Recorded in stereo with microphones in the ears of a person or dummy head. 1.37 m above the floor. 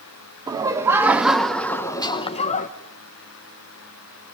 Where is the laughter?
20° right (ahead or behind), 1.6 m; by 2.7 s 40° left (ahead or behind), 1.2 m.